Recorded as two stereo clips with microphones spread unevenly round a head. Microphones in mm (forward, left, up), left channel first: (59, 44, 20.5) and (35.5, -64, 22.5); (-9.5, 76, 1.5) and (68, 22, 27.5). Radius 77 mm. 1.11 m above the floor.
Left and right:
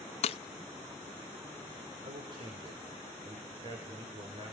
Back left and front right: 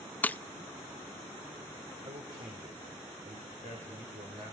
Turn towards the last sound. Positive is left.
turn(degrees=-60)